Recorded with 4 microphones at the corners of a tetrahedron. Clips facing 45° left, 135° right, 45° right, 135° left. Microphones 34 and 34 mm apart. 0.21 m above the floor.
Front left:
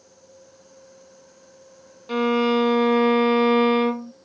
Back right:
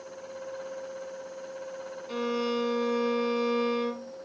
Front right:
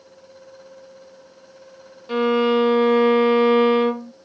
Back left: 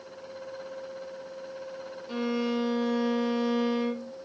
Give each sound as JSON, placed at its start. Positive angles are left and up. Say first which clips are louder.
{"t": 2.1, "sound": "a violin", "louder": "front left 10 dB, front right 11 dB", "azimuth_deg": 0, "distance_m": 0.6}